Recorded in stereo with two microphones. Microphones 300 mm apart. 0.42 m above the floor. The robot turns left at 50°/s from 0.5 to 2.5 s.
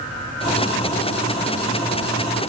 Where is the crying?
I don't hear crying.